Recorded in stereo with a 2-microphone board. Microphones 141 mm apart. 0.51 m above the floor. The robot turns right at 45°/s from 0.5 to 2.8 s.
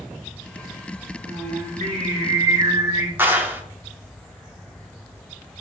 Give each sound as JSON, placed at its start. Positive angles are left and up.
{"t": 1.3, "sound": "singing", "azimuth_deg": -95, "distance_m": 1.0}
{"t": 3.2, "sound": "a clap", "side_deg": -15, "distance_m": 0.5}